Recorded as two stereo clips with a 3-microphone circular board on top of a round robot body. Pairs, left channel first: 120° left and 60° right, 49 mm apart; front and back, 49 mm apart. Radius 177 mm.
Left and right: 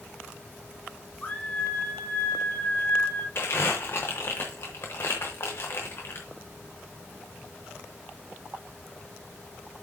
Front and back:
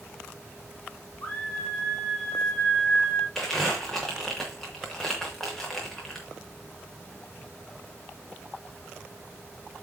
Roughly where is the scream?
Ahead left.